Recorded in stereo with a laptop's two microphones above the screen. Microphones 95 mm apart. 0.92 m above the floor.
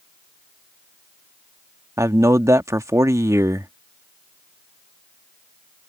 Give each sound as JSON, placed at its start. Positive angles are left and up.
{"t": 2.0, "sound": "a man speaking", "side_deg": -35}